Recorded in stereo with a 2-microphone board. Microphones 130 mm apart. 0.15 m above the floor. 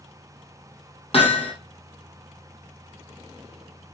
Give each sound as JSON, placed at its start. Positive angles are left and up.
{"t": 1.1, "sound": "hammering", "side_deg": 55, "distance_m": 3.5}